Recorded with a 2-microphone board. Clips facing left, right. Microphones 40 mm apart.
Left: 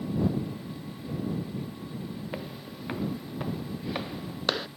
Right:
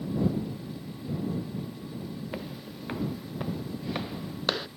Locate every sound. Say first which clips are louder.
2.3 s footsteps: even; 5° left (ahead or behind)